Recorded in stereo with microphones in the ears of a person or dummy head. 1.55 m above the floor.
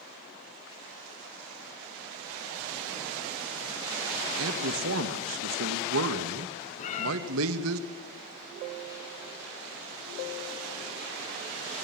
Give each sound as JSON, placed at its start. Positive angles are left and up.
{"t": 4.4, "sound": "a man speaking", "side_deg": -80, "distance_m": 1.8}
{"t": 6.8, "sound": "a cat meowing", "side_deg": 40, "distance_m": 3.0}